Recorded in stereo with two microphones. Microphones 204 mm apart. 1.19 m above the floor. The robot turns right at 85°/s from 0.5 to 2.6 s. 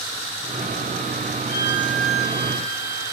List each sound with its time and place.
1.5 s a violin: 40° left, 1.3 m; by 3.1 s 135° left, 1.3 m